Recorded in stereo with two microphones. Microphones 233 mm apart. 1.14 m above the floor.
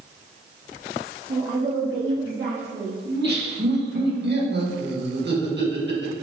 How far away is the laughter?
About 1.3 m.